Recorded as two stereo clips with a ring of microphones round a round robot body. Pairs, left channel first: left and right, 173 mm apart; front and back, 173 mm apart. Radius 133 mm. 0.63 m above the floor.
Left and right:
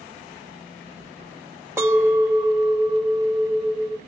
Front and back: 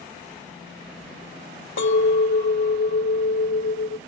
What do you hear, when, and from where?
1.8 s a clink: 10° right, 1.0 m